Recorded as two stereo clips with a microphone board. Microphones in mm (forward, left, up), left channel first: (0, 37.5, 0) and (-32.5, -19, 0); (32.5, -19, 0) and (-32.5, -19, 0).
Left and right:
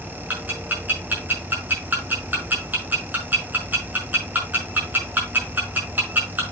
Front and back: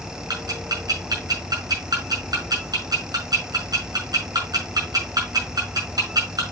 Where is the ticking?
175° left, 6 m.